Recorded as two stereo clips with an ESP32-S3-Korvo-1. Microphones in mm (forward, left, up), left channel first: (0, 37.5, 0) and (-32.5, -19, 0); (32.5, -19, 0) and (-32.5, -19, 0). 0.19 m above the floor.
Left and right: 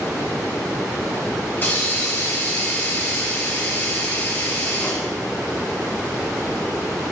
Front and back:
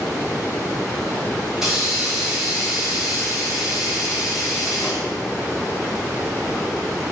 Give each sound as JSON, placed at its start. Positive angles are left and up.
{"t": 1.6, "sound": "a hiss", "azimuth_deg": 100, "distance_m": 1.8}